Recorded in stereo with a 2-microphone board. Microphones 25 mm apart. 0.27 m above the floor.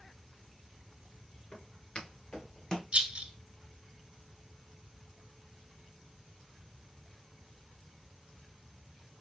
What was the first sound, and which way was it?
Footsteps, 50° left (ahead or behind).